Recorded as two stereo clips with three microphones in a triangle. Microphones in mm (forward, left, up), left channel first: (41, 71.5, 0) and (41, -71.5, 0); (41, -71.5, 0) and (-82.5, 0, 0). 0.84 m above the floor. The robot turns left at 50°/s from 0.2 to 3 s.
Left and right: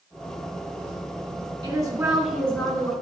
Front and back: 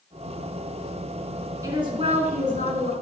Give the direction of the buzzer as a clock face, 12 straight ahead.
I don't hear a buzzer.